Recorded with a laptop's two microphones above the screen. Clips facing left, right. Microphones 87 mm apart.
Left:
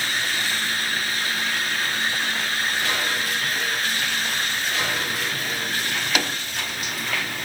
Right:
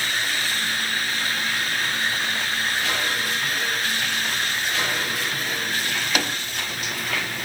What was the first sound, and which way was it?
Only background noise.